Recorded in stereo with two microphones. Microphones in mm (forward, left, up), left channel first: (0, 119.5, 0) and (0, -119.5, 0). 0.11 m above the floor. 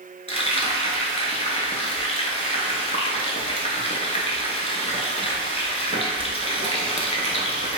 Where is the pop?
No pop in this recording.